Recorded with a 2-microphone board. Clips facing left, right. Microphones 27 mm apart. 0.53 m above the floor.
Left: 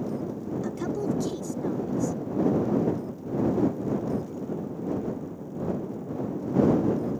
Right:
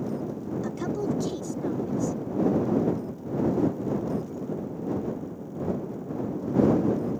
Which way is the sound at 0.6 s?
5° right (ahead or behind).